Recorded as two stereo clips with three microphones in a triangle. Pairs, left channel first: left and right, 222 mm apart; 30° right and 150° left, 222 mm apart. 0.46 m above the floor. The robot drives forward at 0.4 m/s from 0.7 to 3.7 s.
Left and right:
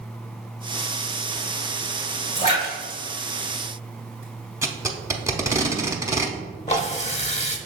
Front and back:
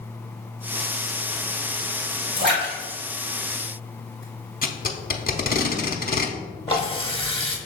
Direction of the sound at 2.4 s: 130° left.